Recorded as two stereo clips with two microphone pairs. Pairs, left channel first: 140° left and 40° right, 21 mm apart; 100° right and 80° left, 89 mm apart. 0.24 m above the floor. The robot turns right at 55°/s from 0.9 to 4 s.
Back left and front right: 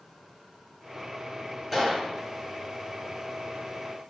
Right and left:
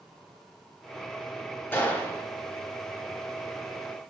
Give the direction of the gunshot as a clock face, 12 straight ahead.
4 o'clock.